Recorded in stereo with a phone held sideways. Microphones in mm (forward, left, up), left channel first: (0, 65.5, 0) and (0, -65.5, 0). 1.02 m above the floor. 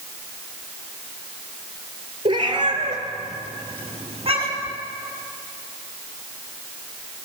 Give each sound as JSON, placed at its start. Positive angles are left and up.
{"t": 2.2, "sound": "a cat meowing", "side_deg": -40, "distance_m": 3.0}